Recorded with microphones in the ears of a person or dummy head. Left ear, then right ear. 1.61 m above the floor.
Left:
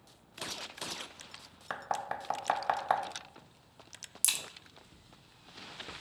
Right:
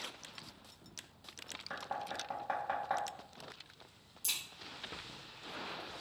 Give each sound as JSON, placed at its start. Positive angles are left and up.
{"t": 1.7, "sound": "knocking", "side_deg": 75, "distance_m": 0.6}
{"t": 4.2, "sound": "a crack", "side_deg": 60, "distance_m": 0.7}